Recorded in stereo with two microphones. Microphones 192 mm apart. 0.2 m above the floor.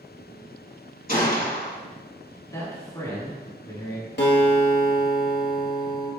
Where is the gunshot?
50° left (ahead or behind), 0.8 m.